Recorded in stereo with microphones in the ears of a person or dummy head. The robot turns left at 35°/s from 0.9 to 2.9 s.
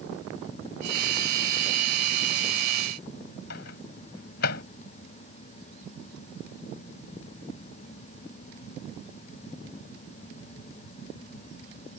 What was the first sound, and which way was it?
A microwave, 65° left (ahead or behind).